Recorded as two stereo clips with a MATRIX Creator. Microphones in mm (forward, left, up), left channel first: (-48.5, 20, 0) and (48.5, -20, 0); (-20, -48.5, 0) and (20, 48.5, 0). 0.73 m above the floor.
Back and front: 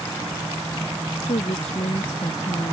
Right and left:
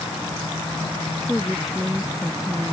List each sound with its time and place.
1.2 s a woman speaking: 155° left